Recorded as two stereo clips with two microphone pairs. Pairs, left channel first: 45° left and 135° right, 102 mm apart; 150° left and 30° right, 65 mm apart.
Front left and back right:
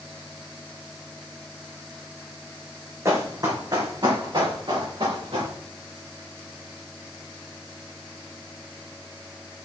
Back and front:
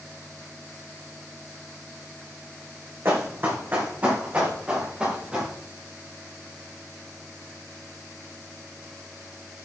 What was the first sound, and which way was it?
Running footsteps, 80° right.